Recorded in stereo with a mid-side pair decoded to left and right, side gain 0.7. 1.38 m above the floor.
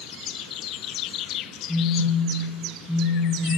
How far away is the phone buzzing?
About 1.7 m.